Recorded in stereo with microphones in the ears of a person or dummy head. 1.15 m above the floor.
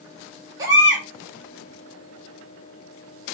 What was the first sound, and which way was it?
A baby crying, 20° right (ahead or behind).